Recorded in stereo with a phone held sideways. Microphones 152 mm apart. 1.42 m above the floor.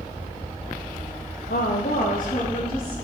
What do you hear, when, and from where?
1.5 s a woman speaking: 80° left, 0.6 m; by 2.9 s 65° left (ahead or behind), 2.5 m